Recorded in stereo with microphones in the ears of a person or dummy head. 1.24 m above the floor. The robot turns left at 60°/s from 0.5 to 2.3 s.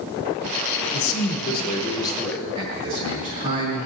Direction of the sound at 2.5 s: 40° right (ahead or behind).